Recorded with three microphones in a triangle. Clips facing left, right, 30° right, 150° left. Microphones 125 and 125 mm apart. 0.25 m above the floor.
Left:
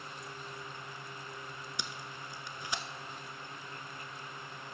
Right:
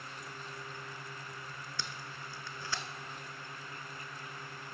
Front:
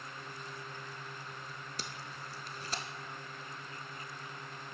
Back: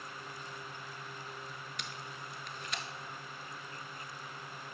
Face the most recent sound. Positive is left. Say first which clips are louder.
# right 1 dB, front 1 dB
turn(degrees=15)